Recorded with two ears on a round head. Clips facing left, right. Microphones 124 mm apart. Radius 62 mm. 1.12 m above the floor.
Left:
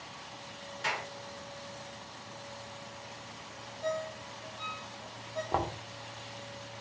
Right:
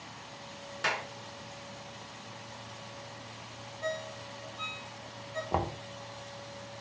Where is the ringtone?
55° right (ahead or behind), 2.5 m.